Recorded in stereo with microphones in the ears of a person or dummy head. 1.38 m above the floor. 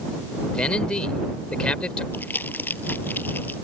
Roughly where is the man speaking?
Centre.